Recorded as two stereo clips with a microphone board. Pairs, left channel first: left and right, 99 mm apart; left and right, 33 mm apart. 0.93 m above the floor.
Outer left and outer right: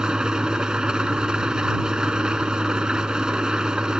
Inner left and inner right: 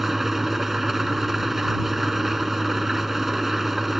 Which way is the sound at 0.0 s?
10° right (ahead or behind).